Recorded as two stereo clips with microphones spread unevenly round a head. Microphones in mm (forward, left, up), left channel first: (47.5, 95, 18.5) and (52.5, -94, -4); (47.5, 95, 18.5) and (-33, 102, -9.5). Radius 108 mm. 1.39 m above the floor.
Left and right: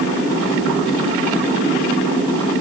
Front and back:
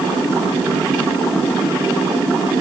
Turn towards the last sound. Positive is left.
No sound to turn to.